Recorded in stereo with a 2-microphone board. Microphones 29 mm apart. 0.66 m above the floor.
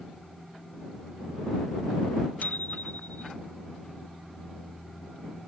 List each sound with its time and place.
2.4 s a bicycle bell: 70° left (ahead or behind)